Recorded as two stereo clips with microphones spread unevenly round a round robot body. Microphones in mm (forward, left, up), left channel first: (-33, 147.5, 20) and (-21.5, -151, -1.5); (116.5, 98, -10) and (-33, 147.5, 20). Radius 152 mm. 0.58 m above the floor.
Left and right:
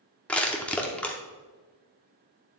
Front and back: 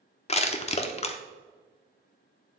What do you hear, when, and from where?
0.3 s crushing: 5° left, 0.6 m